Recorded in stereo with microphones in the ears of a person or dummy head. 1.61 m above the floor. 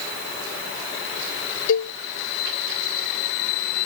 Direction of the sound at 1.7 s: 70° left (ahead or behind).